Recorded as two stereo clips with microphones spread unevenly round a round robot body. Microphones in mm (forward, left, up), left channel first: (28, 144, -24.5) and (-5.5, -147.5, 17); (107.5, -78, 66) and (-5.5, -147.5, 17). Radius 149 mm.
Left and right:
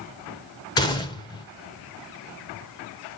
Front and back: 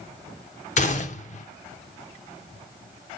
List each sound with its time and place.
0.8 s a gunshot: 35° left, 0.8 m